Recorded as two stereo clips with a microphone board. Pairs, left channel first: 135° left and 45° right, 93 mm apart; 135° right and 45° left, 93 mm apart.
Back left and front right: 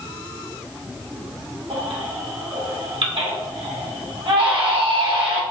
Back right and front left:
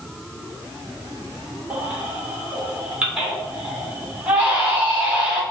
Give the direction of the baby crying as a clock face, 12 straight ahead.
1 o'clock.